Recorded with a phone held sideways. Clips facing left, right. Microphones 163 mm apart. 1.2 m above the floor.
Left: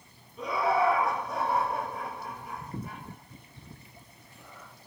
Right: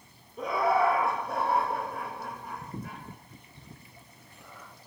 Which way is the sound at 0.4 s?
50° right (ahead or behind).